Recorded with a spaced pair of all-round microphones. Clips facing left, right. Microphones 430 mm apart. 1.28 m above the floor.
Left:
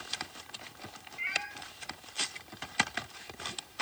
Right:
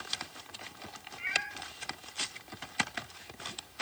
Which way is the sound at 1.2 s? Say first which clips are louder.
Right 1 dB; 35° right (ahead or behind).